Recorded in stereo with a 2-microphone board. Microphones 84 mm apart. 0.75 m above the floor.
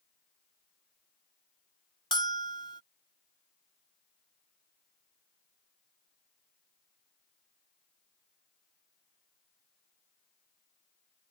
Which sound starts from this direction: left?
A bell, at 2.1 s.